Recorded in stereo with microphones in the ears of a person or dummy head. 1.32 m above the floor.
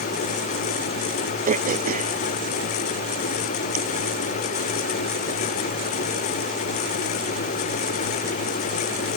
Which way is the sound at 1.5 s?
45° right (ahead or behind).